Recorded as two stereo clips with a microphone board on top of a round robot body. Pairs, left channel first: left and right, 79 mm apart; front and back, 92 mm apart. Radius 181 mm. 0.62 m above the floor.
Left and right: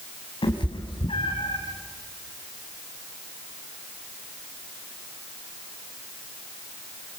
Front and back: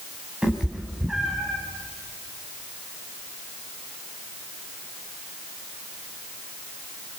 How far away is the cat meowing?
About 3.5 m.